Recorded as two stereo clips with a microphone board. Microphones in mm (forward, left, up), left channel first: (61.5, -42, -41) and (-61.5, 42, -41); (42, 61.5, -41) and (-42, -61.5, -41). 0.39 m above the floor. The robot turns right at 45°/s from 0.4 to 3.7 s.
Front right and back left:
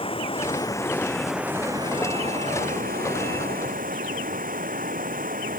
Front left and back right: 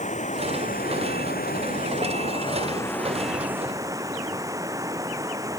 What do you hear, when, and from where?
0.0 s running water: 20° left; by 5.6 s 165° left